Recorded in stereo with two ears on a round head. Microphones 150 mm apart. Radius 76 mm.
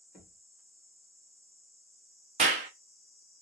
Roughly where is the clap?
Right.